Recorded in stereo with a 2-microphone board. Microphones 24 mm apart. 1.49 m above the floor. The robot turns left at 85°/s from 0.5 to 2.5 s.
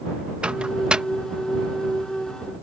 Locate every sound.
0.4 s a microwave: 50° right (ahead or behind); by 1.0 s 35° right (ahead or behind)